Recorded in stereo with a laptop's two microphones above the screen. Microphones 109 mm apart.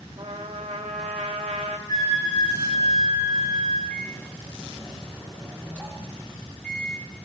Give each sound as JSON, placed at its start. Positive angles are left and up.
{"t": 0.2, "sound": "a trumpet", "side_deg": -75, "distance_m": 1.2}
{"t": 1.9, "sound": "a flute", "side_deg": 45, "distance_m": 6.0}
{"t": 3.9, "sound": "a microwave", "side_deg": 15, "distance_m": 3.5}